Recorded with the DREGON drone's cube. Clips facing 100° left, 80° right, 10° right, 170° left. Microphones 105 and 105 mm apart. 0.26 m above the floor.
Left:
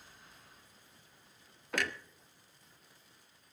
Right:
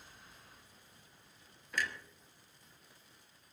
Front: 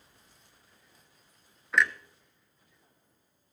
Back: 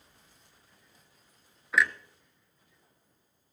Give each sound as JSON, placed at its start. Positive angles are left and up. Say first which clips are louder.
{"t": 1.7, "sound": "a clunk", "louder": "left 2 dB, even", "azimuth_deg": 80, "distance_m": 0.6}